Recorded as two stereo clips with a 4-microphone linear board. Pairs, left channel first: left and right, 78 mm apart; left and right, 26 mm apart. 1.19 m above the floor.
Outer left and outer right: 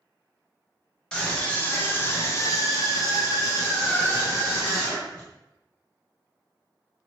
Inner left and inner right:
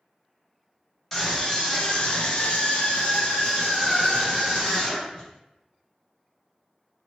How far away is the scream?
About 1.1 m.